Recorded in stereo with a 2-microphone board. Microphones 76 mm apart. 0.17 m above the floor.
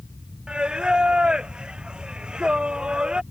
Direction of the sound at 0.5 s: 10° right (ahead or behind).